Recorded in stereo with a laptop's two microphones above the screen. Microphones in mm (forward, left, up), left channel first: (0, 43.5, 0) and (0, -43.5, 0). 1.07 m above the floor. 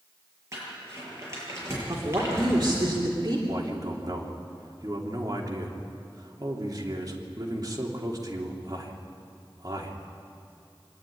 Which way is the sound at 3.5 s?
40° right (ahead or behind).